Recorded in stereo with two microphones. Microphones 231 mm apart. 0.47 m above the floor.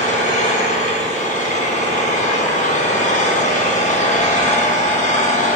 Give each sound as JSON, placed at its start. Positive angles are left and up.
{"t": 0.0, "sound": "an engine running", "side_deg": 35, "distance_m": 2.5}